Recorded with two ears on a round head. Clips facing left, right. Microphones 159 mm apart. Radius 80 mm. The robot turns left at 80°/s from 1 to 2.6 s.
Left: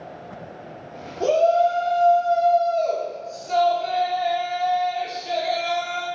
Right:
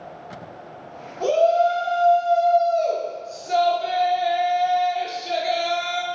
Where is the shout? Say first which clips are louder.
Even; 25° left (ahead or behind), 0.7 m; by 6.0 s 10° right (ahead or behind), 0.7 m.